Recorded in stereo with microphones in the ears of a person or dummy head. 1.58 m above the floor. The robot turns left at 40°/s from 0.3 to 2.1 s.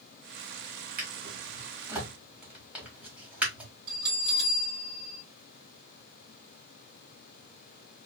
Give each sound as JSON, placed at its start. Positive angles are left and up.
{"t": 1.0, "sound": "a drawer", "side_deg": -45, "distance_m": 1.2}
{"t": 3.9, "sound": "a bell", "side_deg": -60, "distance_m": 1.4}